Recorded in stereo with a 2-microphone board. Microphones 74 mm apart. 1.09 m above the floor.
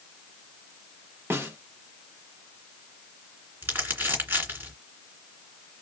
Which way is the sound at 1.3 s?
30° right (ahead or behind).